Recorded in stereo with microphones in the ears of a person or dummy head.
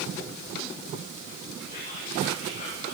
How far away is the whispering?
About 7.5 m.